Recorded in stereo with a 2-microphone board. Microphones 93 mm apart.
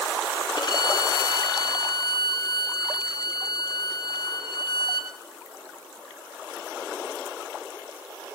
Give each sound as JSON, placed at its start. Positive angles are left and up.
{"t": 0.6, "sound": "a violin", "side_deg": 55, "distance_m": 2.0}